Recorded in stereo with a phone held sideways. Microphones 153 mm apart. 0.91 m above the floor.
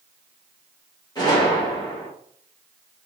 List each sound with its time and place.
1.1 s a gunshot: 25° left (ahead or behind), 1.4 m